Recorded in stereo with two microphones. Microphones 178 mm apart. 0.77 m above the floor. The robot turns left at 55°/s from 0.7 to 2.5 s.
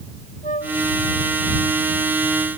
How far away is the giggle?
No giggle in this recording.